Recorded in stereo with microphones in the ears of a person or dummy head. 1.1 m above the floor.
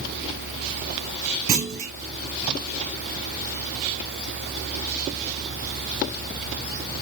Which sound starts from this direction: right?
A clunk, at 1.5 s.